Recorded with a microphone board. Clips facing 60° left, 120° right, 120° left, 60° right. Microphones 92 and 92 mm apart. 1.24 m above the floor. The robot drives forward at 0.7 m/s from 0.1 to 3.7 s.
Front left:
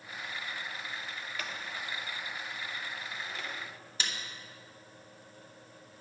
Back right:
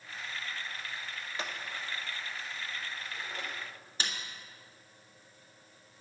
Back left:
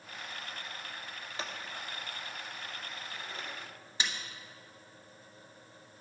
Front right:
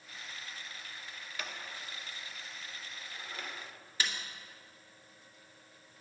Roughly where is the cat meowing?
I don't hear a cat meowing.